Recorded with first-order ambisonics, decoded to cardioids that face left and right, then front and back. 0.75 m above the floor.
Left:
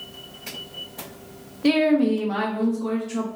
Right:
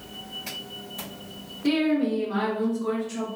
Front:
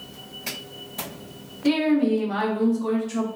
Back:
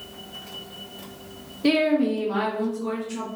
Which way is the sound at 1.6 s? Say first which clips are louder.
Left 5 dB, back 1 dB; 130° left.